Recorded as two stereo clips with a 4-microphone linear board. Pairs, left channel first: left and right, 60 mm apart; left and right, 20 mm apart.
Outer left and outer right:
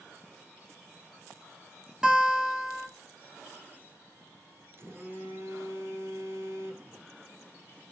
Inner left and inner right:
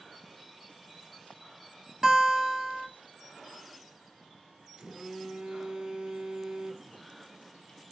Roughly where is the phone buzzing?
Right.